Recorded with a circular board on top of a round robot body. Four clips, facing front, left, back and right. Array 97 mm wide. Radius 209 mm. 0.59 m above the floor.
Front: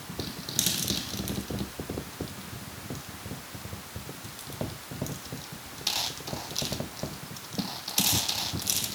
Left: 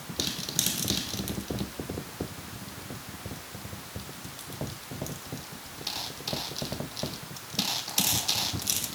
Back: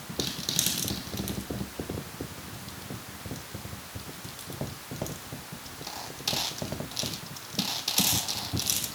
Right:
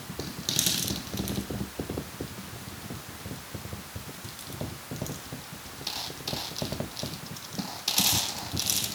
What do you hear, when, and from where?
Only background noise.